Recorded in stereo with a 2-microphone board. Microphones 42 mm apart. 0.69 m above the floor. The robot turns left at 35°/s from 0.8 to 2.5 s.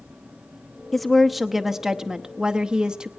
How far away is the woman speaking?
About 0.8 m.